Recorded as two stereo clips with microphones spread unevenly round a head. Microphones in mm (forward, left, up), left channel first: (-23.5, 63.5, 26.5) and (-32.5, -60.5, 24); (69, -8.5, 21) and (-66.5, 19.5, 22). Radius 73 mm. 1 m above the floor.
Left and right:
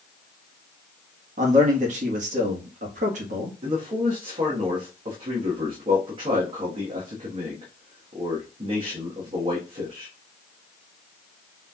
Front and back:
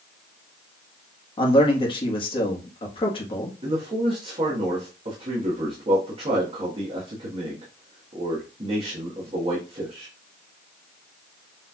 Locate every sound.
1.4 s a man speaking: 65° right, 1.3 m
3.6 s a man speaking: 140° right, 1.4 m